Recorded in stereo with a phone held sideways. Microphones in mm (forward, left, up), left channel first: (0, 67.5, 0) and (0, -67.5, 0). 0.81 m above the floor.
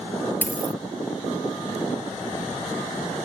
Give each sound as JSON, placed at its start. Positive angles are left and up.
{"t": 0.4, "sound": "a dropped coin", "side_deg": 15}